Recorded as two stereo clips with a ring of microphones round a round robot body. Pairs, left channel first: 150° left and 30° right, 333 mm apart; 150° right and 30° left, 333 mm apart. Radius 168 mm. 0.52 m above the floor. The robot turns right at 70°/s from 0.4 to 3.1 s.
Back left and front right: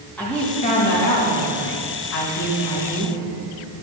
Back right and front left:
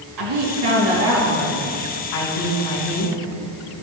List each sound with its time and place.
0.2 s a woman speaking: 65° left, 4 m; by 3.2 s 105° right, 4 m